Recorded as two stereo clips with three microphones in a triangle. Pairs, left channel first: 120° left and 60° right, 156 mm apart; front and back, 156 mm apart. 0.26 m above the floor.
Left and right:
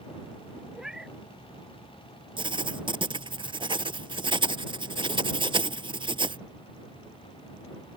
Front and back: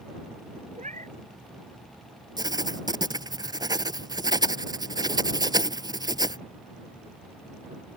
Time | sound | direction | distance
0.7 | a cat meowing | 145° right | ?
2.4 | writing | 115° right | ?